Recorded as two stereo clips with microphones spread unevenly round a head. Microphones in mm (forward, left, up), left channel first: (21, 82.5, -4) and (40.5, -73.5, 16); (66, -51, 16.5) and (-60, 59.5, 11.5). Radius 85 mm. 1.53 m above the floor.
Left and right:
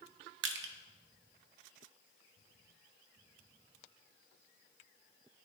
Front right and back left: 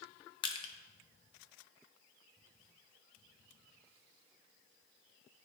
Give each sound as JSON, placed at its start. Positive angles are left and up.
{"t": 0.4, "sound": "crushing", "azimuth_deg": -105, "distance_m": 0.6}